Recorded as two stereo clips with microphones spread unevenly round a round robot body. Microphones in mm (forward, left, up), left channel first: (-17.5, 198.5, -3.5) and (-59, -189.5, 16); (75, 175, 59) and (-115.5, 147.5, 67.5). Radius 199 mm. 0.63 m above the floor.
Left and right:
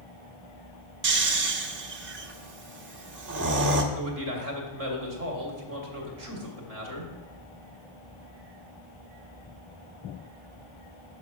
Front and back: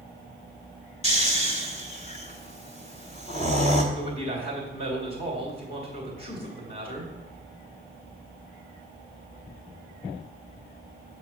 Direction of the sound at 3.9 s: 40° right.